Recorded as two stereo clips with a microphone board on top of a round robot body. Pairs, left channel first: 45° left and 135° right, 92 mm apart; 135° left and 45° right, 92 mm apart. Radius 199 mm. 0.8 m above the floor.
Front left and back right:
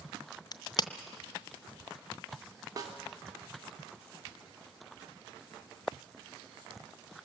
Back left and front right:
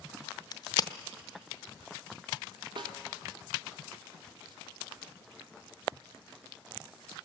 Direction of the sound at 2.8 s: 80° right.